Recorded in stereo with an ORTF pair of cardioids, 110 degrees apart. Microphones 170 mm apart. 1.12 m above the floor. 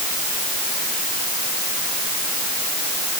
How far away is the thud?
I don't hear a thud.